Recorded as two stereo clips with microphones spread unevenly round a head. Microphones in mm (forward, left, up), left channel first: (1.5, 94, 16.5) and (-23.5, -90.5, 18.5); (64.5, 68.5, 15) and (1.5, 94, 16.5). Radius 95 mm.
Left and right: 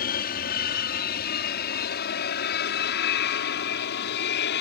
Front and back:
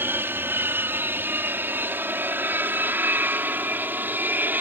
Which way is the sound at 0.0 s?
110° left.